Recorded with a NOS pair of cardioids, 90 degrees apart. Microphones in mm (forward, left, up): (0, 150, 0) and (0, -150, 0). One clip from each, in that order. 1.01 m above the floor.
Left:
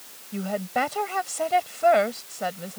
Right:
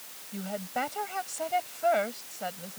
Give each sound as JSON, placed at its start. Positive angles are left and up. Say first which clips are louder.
{"t": 0.3, "sound": "a woman speaking", "louder": "left 7 dB", "azimuth_deg": 45}